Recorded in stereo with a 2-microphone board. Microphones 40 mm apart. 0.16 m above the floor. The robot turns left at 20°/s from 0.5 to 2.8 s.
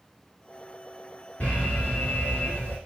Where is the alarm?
40° left (ahead or behind), 1.4 m; by 2.8 s 50° left (ahead or behind), 1.4 m.